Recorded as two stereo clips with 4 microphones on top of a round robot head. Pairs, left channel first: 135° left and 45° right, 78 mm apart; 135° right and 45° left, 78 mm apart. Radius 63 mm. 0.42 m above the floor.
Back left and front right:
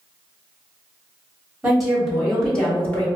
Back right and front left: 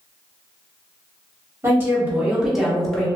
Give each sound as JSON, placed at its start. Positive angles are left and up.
{"t": 1.6, "sound": "a woman speaking", "azimuth_deg": 35, "distance_m": 1.4}